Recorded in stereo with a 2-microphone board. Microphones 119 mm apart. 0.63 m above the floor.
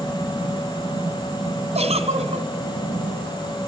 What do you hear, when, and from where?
1.8 s a giggle: 60° right (ahead or behind), 2.5 m